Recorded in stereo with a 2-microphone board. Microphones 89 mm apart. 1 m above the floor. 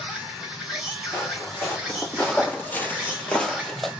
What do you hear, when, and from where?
0.0 s an insect: 10° right (ahead or behind), 2.5 m
1.1 s footsteps: 15° left (ahead or behind), 3 m; by 3.9 s centre (ahead or behind), 1.4 m